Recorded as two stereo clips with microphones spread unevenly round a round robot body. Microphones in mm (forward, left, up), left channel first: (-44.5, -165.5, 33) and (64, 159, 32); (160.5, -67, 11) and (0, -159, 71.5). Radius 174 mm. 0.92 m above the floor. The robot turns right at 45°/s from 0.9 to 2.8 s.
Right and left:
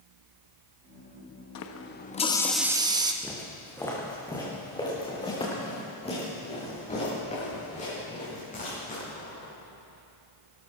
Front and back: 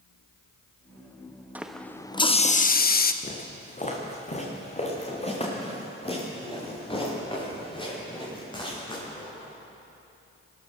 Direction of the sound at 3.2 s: 20° right.